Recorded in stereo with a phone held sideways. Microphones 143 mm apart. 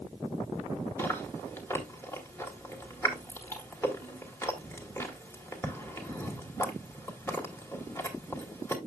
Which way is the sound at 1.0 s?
20° left (ahead or behind).